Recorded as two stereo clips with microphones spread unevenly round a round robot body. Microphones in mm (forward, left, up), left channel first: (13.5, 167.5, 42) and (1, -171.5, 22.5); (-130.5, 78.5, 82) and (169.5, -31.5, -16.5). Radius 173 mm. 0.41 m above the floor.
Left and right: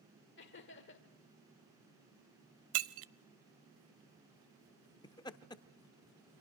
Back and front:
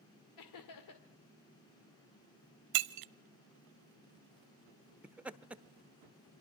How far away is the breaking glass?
About 0.7 m.